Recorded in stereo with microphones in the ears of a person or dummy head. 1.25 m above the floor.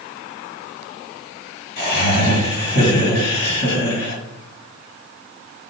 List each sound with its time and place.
1.8 s laughter: 60° left (ahead or behind), 1.9 m